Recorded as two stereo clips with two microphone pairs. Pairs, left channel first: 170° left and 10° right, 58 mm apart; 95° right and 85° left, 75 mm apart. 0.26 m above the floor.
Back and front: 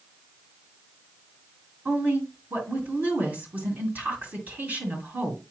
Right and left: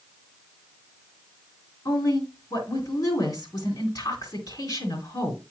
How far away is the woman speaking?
About 3 m.